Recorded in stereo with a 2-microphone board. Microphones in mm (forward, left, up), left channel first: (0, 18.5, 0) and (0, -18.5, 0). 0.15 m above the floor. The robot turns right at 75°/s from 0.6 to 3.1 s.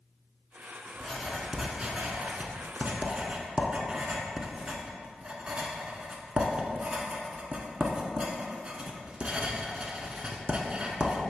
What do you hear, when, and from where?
1.0 s writing: 15° left (ahead or behind), 0.8 m; by 11.2 s 25° right (ahead or behind), 0.8 m